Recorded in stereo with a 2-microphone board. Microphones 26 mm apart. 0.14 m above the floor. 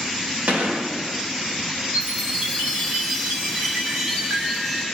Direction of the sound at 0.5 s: 70° right (ahead or behind).